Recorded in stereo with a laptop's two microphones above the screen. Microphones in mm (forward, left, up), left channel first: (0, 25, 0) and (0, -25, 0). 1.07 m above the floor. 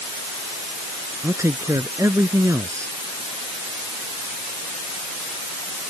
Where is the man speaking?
75° right (ahead or behind).